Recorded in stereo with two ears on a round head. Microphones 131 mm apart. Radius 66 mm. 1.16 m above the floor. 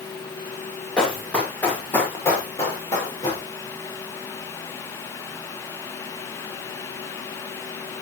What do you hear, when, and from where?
1.0 s running footsteps: 5° left (ahead or behind), 5.5 m; by 3.4 s 30° left (ahead or behind), 7 m